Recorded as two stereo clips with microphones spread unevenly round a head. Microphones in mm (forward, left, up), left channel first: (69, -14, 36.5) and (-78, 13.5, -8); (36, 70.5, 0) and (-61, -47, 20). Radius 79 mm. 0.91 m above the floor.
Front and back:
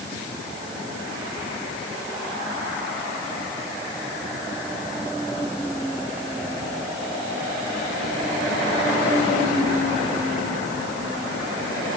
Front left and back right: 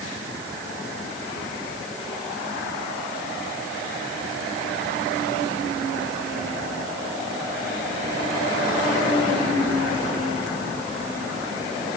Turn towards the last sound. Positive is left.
No sound to turn to.